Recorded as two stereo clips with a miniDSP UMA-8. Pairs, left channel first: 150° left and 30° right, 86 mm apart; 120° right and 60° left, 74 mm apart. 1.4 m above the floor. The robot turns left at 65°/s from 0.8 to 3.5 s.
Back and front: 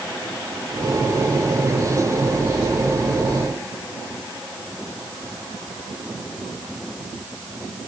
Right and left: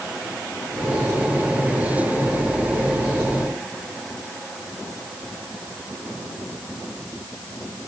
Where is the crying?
I don't hear crying.